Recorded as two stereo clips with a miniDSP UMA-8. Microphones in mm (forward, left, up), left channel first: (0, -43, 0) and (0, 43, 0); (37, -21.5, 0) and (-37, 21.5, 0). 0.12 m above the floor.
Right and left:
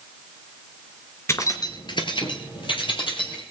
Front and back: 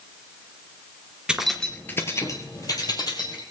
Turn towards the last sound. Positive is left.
turn(degrees=-70)